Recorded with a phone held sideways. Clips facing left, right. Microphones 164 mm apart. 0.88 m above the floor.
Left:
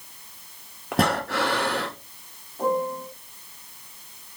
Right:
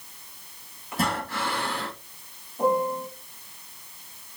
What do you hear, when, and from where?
0.9 s breathing: 70° left (ahead or behind), 1.5 m
2.6 s a piano: 10° right (ahead or behind), 3.5 m